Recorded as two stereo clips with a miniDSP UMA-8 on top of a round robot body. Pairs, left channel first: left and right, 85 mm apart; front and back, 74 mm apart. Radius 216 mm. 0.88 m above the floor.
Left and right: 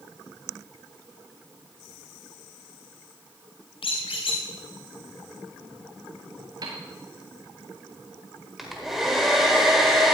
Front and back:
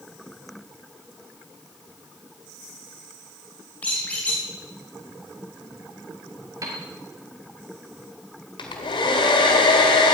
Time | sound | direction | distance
3.8 | a squeak | 75° left | 2.5 m
6.6 | a piano | 135° right | 1.5 m
8.6 | a hair dryer | 5° right | 1.5 m